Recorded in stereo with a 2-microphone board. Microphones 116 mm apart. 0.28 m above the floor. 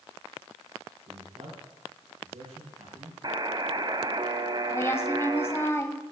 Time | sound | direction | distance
1.1 | a man speaking | 80° right | 7.5 m
3.2 | a buzzer | 40° right (ahead or behind) | 0.9 m
4.7 | a woman speaking | 25° left (ahead or behind) | 1.3 m